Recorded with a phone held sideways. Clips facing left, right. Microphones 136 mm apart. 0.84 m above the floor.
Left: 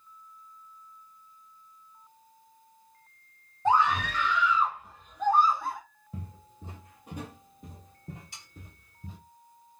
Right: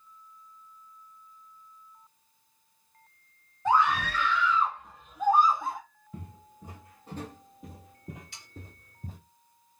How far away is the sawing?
About 2 m.